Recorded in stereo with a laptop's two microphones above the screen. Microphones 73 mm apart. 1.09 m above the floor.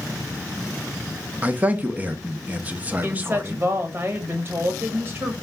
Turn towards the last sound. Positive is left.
turn(degrees=-35)  # may be behind; listen again after turning